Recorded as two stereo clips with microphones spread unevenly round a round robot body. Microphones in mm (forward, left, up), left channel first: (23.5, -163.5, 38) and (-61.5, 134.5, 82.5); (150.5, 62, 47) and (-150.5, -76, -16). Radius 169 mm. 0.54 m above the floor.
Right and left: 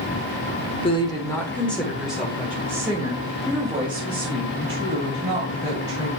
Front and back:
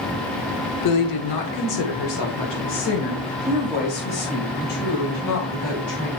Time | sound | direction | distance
0.8 | a woman speaking | 10° right | 1.1 m